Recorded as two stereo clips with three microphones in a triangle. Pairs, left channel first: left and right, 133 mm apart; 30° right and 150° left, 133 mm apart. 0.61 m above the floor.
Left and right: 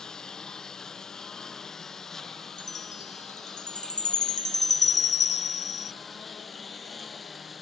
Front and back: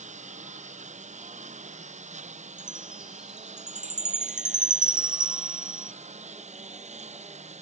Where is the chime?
65° left.